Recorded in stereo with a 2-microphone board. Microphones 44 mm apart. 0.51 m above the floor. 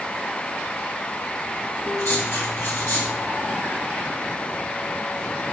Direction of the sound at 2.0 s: 70° left (ahead or behind).